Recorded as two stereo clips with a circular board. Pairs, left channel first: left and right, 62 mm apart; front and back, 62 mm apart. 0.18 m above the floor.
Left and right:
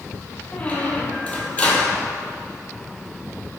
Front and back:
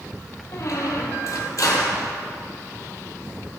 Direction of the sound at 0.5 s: 25° left.